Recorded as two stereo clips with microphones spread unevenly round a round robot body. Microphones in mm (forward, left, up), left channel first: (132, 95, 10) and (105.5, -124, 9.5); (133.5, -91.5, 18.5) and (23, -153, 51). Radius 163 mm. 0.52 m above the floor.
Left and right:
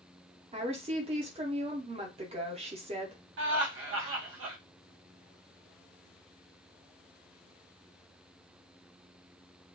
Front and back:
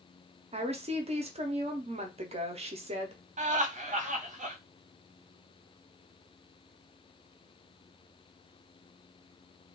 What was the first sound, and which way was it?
A woman speaking, 135° right.